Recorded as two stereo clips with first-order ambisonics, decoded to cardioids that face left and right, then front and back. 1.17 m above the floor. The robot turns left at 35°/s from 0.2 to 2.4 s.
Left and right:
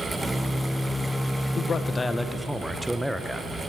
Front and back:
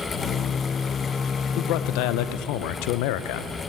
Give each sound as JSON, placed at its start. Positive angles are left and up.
{"t": 1.6, "sound": "a man speaking", "azimuth_deg": 25, "distance_m": 0.5}